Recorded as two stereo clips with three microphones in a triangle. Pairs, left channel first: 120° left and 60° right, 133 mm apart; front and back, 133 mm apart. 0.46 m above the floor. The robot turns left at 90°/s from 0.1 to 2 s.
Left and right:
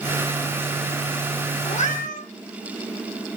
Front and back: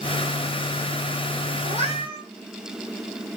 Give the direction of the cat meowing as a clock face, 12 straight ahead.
7 o'clock.